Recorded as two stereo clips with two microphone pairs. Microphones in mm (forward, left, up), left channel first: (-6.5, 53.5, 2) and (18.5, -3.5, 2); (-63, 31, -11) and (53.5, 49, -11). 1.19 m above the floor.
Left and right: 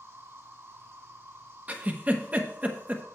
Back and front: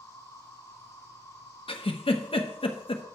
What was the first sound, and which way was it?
An insect, 110° right.